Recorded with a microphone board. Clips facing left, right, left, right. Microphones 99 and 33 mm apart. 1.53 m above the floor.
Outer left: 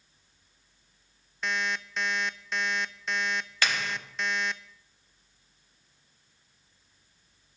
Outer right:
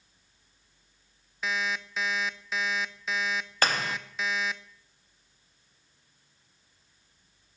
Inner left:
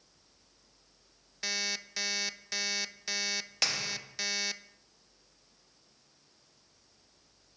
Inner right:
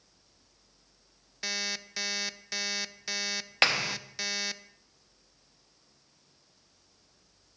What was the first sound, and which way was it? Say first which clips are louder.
An alarm clock: even, even; 5° right (ahead or behind).